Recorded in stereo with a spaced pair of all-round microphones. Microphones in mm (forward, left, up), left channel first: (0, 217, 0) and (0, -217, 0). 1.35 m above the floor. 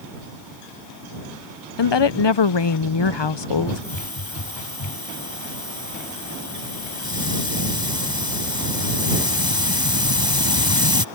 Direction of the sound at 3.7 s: 50° left (ahead or behind).